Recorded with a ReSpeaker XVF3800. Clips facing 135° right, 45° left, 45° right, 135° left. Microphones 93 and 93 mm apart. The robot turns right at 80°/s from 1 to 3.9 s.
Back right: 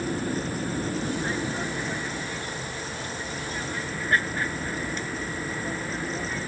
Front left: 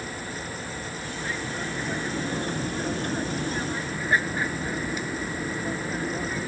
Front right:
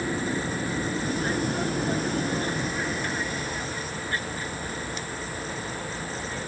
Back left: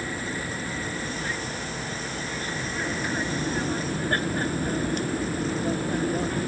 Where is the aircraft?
110° right; by 6.5 s 125° left.